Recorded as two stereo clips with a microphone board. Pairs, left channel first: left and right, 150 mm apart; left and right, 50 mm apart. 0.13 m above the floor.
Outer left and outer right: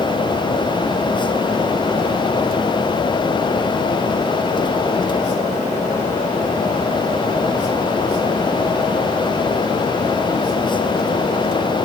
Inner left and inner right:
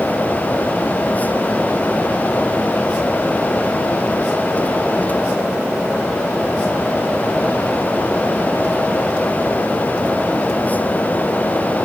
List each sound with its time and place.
Only background noise.